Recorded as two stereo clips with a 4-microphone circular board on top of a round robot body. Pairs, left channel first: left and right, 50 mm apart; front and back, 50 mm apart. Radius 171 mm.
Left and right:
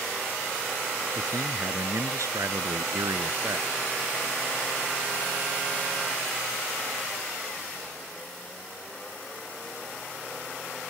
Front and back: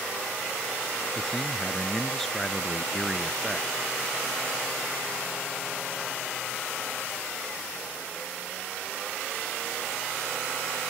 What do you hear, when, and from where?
1.1 s a man speaking: 85° right